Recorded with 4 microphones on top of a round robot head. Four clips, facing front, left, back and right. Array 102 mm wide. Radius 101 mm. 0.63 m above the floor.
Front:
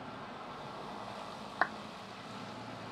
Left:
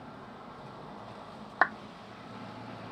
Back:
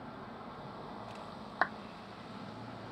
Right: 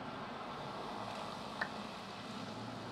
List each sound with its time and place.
1.6 s a clap: 85° left